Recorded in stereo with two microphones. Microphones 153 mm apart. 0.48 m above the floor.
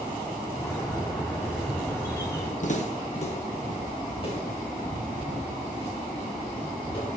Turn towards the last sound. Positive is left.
turn(degrees=30)  # may be behind; listen again after turning